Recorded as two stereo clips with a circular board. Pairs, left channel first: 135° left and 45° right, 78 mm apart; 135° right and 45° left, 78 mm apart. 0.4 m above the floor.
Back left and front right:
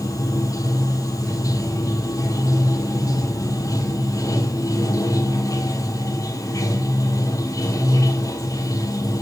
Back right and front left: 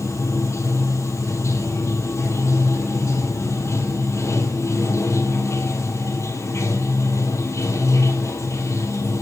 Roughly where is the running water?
Behind.